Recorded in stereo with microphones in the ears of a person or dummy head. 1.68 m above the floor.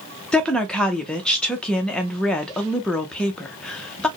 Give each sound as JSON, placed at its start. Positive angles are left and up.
{"t": 0.3, "sound": "a woman speaking", "side_deg": 0, "distance_m": 0.5}